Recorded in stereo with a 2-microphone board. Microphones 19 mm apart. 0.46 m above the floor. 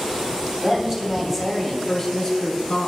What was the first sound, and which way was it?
A woman speaking, 30° right (ahead or behind).